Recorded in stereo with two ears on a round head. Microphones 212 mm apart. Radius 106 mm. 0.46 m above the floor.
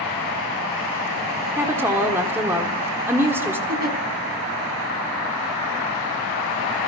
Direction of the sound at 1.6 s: 10° right (ahead or behind).